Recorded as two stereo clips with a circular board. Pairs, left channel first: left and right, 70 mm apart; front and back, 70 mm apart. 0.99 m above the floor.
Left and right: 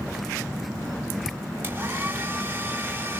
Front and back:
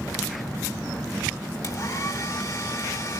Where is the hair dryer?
30° right, 3.5 m.